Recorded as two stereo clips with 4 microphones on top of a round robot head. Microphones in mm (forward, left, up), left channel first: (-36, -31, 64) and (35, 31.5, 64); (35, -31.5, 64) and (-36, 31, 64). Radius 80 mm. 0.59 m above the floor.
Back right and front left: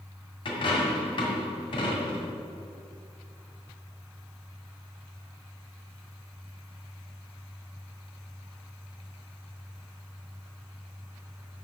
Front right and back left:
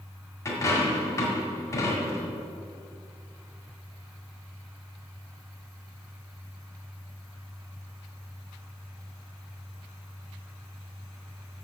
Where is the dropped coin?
100° right, 2 m.